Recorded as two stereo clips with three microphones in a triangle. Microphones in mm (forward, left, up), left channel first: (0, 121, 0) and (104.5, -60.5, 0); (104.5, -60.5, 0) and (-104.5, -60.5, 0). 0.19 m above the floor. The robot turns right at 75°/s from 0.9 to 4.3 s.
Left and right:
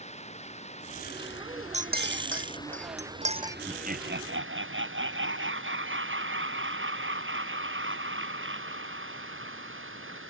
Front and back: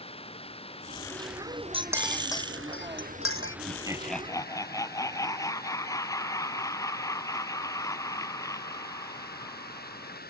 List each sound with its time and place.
0.0 s running water: 60° left; by 10.3 s 45° right
1.7 s a clink: 120° right; by 3.6 s 20° left
3.7 s laughter: 125° right; by 10.2 s 75° right